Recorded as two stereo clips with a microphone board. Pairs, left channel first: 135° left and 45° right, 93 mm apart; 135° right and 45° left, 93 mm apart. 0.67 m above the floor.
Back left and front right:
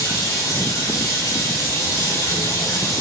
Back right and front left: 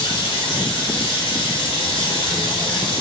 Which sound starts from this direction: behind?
Running water, at 0.0 s.